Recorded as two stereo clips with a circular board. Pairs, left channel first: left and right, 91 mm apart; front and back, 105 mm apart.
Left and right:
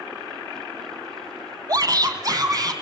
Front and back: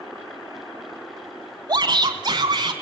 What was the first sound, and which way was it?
A shout, 135° right.